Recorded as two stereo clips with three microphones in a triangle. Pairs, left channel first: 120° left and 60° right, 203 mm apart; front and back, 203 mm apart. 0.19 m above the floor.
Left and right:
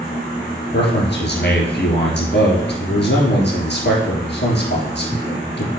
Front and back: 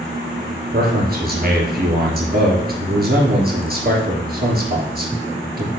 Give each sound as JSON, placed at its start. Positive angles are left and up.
{"t": 0.7, "sound": "a man speaking", "azimuth_deg": 145, "distance_m": 3.0}